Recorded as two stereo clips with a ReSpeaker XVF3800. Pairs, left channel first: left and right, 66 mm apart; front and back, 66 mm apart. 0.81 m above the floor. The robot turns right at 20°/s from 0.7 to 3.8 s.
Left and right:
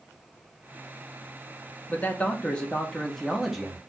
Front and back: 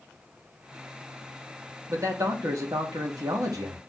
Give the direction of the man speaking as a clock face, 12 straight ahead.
7 o'clock.